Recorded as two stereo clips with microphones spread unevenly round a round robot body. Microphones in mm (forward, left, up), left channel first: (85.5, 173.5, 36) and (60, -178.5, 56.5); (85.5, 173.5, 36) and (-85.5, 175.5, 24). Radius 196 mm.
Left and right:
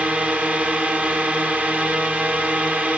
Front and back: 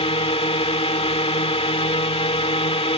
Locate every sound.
0.0 s a drone: 5° right